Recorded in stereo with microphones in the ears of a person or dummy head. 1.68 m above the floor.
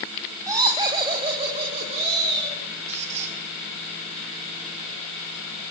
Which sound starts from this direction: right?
A squeak, at 2.9 s.